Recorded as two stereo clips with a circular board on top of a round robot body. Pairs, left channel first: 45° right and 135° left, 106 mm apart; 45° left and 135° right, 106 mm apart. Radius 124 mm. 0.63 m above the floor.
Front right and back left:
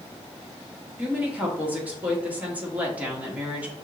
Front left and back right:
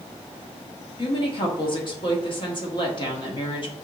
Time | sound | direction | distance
1.0 | a woman speaking | 65° left | 1.6 m